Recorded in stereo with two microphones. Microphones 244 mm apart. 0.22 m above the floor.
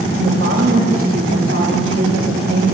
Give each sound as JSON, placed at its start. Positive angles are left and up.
{"t": 0.1, "sound": "a woman speaking", "side_deg": -65, "distance_m": 8.5}